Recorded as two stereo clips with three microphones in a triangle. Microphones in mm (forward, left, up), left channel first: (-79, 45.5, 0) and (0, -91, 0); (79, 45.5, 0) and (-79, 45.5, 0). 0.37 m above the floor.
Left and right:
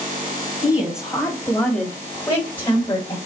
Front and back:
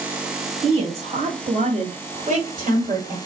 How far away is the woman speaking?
About 1.5 m.